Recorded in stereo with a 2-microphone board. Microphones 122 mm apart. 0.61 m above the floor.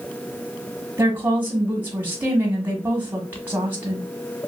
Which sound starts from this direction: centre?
A woman speaking, at 1.0 s.